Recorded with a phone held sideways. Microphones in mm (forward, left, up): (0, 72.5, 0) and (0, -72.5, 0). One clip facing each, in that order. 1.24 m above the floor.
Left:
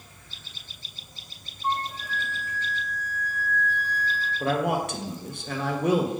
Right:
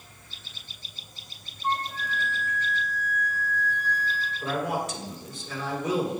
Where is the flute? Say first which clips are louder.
Even; 45° left (ahead or behind), 1.9 m.